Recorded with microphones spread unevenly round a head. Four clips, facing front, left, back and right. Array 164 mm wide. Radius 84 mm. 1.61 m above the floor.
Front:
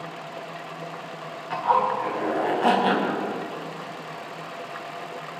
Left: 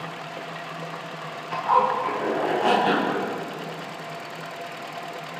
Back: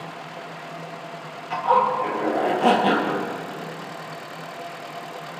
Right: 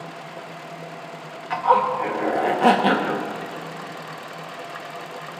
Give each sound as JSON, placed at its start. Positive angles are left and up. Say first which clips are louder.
{"t": 1.5, "sound": "a zipper", "louder": "right 2 dB, back 2 dB", "azimuth_deg": -110, "distance_m": 1.8}